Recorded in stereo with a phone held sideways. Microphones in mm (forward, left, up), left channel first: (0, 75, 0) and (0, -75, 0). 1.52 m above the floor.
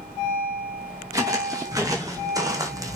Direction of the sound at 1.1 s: 25° right (ahead or behind).